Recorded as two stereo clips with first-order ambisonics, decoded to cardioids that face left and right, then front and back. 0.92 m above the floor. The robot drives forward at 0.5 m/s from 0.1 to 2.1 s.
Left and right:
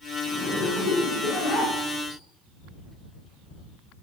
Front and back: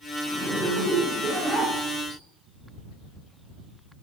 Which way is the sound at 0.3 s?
125° left.